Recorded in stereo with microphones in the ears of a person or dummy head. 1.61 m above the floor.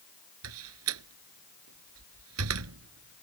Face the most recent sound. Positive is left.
turn(degrees=-85)